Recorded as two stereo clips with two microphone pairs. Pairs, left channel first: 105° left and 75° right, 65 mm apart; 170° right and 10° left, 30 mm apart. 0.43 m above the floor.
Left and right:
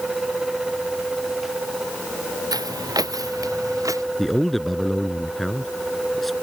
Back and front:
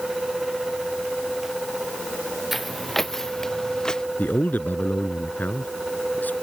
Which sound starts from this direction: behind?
A man speaking, at 4.2 s.